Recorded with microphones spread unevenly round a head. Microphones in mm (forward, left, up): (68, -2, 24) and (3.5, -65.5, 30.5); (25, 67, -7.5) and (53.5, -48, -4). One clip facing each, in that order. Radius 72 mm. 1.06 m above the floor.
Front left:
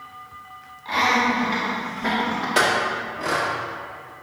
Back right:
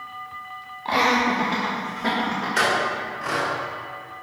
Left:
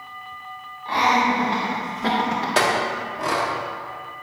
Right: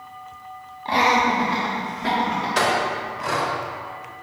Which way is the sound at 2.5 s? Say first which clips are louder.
Front left 2 dB, even; 75° left.